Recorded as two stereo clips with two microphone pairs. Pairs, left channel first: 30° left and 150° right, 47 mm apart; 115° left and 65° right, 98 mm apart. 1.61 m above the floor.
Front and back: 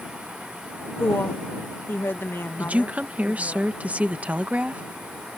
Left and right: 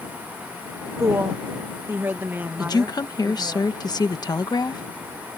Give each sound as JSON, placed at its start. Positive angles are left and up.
{"t": 1.0, "sound": "a woman speaking", "azimuth_deg": -5}
{"t": 2.6, "sound": "a woman speaking", "azimuth_deg": 160}